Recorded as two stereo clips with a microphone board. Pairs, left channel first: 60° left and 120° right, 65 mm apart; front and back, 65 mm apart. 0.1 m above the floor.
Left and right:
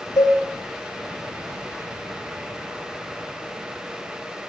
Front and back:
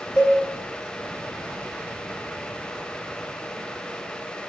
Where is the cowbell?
60° left, 0.8 m.